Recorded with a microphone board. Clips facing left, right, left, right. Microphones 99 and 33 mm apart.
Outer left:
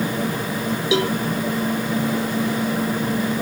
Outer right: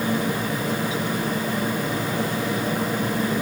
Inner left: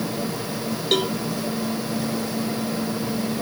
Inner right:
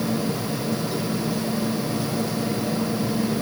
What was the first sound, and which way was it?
A cowbell, 85° left.